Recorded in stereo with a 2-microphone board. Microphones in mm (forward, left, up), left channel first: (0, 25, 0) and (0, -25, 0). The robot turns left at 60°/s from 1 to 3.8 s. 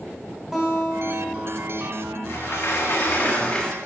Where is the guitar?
Straight behind, 3.5 m; by 2.2 s 110° left, 3.5 m.